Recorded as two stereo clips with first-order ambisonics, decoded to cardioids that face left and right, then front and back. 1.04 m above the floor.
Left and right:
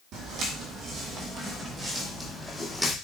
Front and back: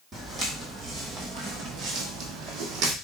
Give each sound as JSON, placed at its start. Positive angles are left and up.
{"t": 0.1, "sound": "footsteps", "azimuth_deg": -115, "distance_m": 1.6}